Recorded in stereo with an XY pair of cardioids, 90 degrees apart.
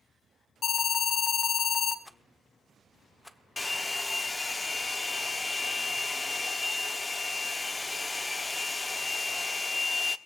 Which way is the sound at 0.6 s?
65° left.